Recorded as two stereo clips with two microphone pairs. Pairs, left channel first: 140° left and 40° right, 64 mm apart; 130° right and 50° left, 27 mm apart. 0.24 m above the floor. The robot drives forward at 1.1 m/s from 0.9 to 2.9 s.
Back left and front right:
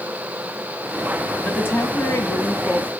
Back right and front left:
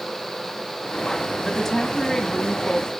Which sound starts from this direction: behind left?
A woman speaking, at 1.4 s.